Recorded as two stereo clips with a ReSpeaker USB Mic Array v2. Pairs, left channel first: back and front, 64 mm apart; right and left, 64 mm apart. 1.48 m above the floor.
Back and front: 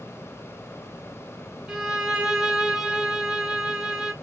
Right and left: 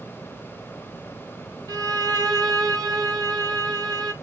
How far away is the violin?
About 1.0 m.